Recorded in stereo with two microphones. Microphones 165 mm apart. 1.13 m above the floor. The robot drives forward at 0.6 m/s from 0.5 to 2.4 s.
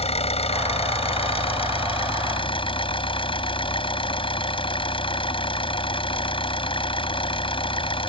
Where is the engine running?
40° left (ahead or behind); by 8.1 s 30° left (ahead or behind).